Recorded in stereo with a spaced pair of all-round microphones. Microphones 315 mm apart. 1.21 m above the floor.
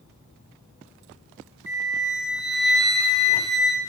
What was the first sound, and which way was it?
A flute, 65° left (ahead or behind).